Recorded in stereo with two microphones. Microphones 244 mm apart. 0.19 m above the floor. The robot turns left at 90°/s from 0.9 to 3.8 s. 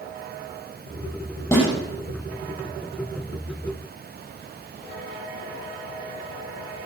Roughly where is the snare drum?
Centre.